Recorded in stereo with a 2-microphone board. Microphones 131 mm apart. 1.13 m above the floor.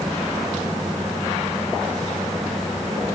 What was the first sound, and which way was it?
Only background noise.